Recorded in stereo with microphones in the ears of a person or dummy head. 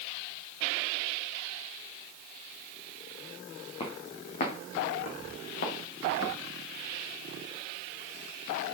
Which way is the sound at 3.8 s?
35° left (ahead or behind).